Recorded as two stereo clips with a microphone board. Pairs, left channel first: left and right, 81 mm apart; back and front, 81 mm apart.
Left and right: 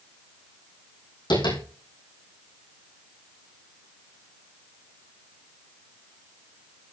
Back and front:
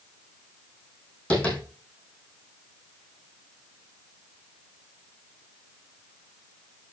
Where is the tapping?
105° left, 7 m.